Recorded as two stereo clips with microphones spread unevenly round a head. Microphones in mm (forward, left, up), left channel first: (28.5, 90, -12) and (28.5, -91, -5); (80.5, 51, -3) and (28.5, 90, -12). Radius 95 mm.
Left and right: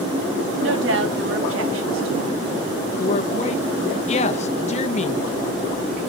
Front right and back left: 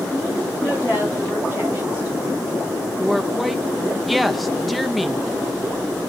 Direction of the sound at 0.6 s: 120° right.